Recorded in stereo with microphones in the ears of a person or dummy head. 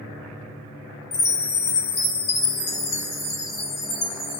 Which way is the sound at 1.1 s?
50° left (ahead or behind).